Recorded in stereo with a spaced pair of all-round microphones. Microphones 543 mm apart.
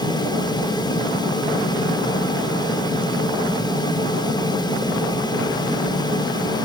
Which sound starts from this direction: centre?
A fan, at 0.0 s.